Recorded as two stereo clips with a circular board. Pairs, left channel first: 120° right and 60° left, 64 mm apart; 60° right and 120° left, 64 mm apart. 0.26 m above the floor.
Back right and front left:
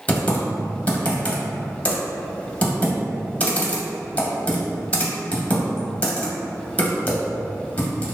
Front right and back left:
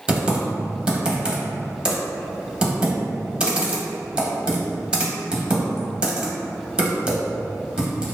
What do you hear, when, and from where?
0.1 s typing on a keyboard: 175° right, 0.5 m